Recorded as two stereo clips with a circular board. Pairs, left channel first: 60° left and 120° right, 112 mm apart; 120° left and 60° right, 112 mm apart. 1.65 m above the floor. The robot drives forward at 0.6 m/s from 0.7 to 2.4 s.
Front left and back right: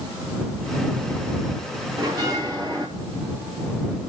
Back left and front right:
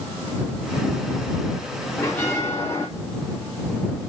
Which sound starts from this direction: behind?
A bell, at 2.0 s.